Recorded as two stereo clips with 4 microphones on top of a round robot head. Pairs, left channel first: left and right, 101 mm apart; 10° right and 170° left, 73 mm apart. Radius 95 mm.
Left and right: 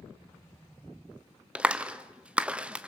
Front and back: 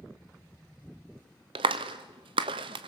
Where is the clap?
165° right, 0.5 m.